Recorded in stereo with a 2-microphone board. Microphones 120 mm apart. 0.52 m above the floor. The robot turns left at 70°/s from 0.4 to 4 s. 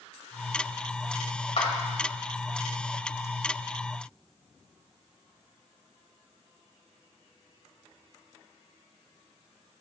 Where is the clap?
60° left (ahead or behind), 1.8 m; by 1.7 s 50° left (ahead or behind), 1.8 m.